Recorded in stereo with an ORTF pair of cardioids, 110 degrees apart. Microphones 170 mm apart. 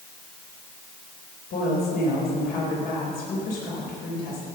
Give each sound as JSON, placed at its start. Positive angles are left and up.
{"t": 1.5, "sound": "a woman speaking", "azimuth_deg": 65, "distance_m": 4.0}